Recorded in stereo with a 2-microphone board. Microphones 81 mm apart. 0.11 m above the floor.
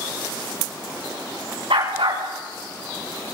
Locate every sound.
1.7 s a dog barking: 85° right, 7 m